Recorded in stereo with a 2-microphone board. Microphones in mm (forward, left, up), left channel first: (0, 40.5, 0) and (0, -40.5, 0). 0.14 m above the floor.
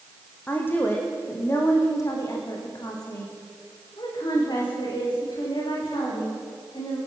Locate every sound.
0.5 s a woman speaking: 25° left (ahead or behind), 6 m; by 7.0 s 65° left (ahead or behind), 13 m